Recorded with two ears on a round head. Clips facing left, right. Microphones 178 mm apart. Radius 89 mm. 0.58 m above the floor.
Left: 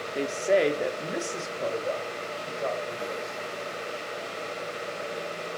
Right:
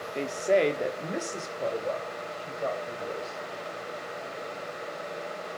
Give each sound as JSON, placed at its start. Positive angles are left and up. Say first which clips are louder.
{"t": 0.1, "sound": "a woman speaking", "louder": "left 1 dB", "side_deg": 5, "distance_m": 0.8}